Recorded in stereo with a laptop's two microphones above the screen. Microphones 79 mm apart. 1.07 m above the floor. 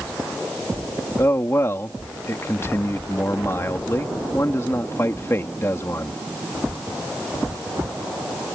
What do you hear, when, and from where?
1.2 s a man speaking: 35° left (ahead or behind)